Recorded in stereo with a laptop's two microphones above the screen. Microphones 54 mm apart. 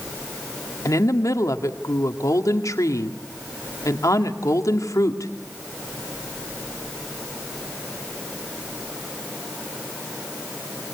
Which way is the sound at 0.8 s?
85° left.